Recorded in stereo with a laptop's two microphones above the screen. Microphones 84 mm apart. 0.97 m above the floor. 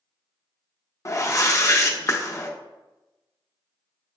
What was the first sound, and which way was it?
A whoosh, 35° left (ahead or behind).